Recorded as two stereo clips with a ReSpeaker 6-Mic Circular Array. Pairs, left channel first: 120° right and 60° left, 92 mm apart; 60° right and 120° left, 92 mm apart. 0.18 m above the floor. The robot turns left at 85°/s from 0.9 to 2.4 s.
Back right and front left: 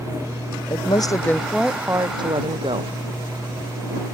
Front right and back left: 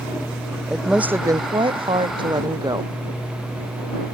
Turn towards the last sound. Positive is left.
turn(degrees=75)